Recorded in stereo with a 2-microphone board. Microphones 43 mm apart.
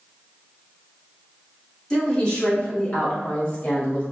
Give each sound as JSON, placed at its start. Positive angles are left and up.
{"t": 1.9, "sound": "a woman speaking", "side_deg": 15, "distance_m": 1.9}